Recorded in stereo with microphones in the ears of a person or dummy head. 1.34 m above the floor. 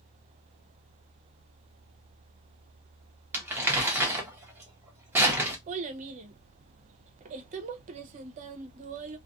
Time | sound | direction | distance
3.3 | crumpling | 10° right (ahead or behind) | 0.8 m
5.7 | a child speaking | 40° right (ahead or behind) | 0.7 m